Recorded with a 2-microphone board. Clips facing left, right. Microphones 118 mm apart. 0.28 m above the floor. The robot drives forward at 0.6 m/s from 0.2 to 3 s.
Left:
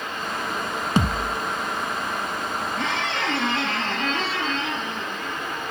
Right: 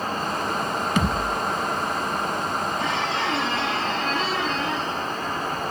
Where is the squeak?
75° left (ahead or behind), 4 m; by 5.6 s 80° left, 4 m.